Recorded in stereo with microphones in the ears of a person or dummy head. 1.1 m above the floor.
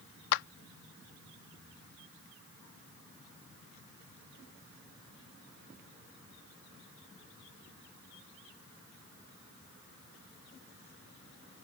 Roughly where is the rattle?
I don't hear a rattle.